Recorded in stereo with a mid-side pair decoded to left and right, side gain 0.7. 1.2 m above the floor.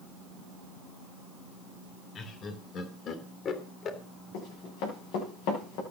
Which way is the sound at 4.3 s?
70° left.